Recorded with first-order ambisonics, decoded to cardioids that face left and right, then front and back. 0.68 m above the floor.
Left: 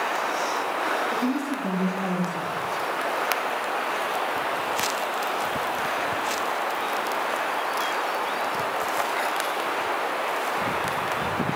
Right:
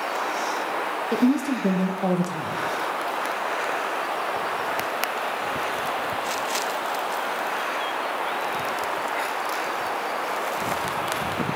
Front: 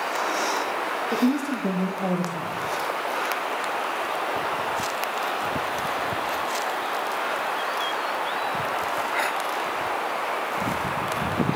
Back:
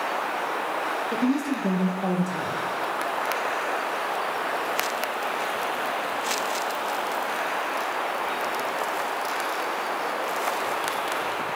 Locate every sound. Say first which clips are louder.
1.1 s a woman speaking: right 3 dB, front 1 dB; 80° right, 0.6 m